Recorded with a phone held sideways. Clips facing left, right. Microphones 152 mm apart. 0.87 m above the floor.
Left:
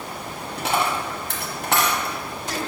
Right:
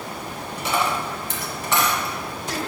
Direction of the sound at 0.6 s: 60° left (ahead or behind).